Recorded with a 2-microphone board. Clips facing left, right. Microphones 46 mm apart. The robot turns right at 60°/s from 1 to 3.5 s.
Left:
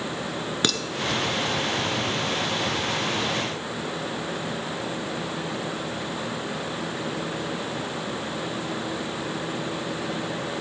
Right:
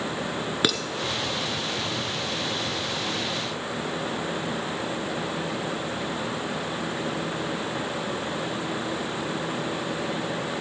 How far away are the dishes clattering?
About 0.9 m.